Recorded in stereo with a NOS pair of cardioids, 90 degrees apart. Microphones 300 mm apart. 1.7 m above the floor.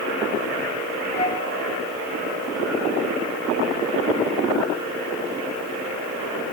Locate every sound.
1.2 s a flute: 20° left, 2.0 m